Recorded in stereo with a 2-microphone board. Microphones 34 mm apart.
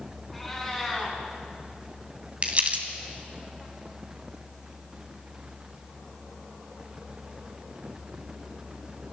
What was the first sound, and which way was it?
A cat meowing, centre (ahead or behind).